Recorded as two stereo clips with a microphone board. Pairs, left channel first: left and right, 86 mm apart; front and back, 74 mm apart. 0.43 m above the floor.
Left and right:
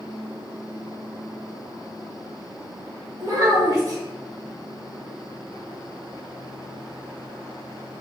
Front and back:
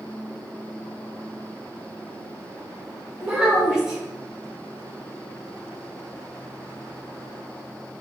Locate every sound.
3.2 s a child speaking: 105° right, 0.8 m